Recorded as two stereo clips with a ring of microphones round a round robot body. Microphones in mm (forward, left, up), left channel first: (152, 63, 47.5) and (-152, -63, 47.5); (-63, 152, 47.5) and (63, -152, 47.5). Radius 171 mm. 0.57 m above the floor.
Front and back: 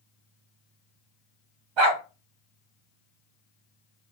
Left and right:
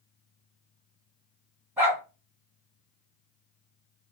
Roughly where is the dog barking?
Behind right.